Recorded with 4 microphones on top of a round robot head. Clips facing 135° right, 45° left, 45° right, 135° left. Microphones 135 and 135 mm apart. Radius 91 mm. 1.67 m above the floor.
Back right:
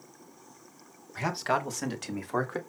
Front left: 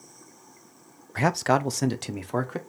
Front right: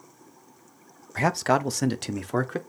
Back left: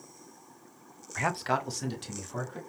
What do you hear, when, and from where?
1.1 s a man speaking: 10° left, 0.9 m; by 2.6 s 30° right, 1.6 m